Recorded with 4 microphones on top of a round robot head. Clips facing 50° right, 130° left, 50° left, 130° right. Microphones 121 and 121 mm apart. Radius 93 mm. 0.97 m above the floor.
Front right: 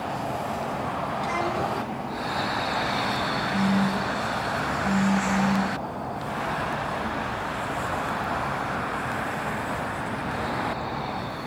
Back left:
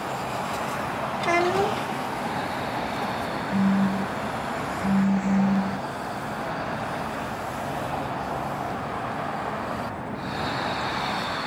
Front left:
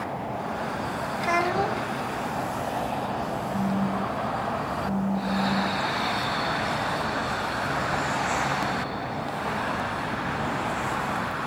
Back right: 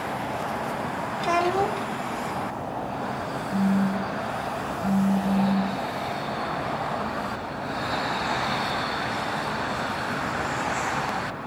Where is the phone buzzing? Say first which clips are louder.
Back left 2 dB, back right 5 dB; 170° left, 2.5 m.